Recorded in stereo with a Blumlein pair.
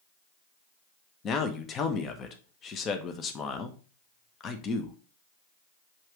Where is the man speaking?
25° left, 1.4 m.